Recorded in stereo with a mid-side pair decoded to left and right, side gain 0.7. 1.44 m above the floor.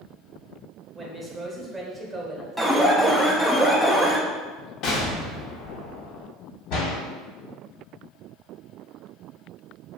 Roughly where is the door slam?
Ahead left.